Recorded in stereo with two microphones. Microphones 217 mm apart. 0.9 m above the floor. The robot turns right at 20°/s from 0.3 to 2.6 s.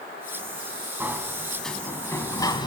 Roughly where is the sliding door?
Ahead.